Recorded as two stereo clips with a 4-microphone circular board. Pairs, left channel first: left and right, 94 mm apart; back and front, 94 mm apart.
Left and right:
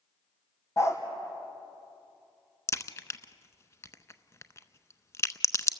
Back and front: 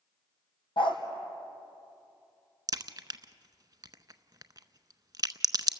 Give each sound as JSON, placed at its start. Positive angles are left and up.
{"t": 0.8, "sound": "a dog barking", "azimuth_deg": 150, "distance_m": 2.0}
{"t": 2.7, "sound": "a crack", "azimuth_deg": 40, "distance_m": 0.6}